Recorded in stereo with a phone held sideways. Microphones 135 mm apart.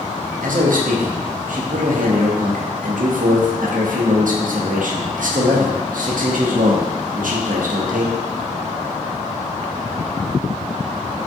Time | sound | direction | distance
0.4 | a man speaking | 85° right | 0.5 m